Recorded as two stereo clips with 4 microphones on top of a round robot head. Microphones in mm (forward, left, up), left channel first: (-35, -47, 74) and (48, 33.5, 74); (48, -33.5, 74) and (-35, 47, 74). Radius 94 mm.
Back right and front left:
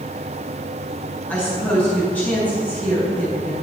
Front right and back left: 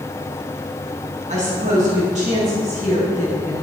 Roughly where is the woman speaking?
Behind left.